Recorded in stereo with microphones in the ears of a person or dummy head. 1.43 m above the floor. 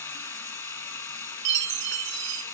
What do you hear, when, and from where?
0.0 s running water: 15° left (ahead or behind), 1.5 m
1.4 s a chime: 60° right (ahead or behind), 1.2 m